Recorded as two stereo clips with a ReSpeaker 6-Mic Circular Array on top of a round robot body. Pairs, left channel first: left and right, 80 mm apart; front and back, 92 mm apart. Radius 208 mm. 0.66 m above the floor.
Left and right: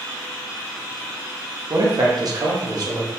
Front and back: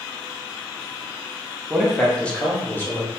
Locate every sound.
1.7 s a man speaking: 100° right, 1.0 m; by 3.1 s 60° right, 1.8 m